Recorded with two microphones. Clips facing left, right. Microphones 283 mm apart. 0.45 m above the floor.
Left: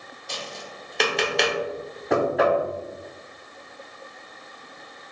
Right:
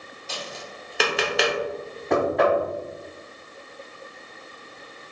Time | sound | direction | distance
0.3 | tapping | 5° right (ahead or behind) | 0.8 m
2.1 | knocking | centre (ahead or behind) | 0.7 m